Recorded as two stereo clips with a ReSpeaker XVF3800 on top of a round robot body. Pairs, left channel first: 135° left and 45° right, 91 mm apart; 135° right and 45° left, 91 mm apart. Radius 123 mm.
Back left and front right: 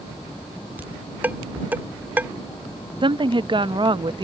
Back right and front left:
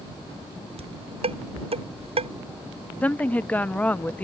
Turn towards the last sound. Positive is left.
turn(degrees=-65)